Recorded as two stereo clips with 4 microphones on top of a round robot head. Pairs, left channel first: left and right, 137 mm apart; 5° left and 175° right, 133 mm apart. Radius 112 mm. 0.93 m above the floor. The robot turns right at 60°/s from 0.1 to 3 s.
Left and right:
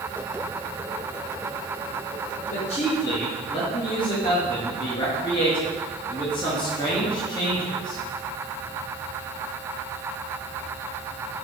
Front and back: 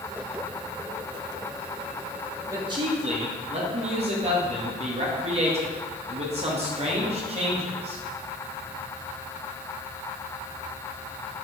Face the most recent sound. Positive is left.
turn(degrees=150)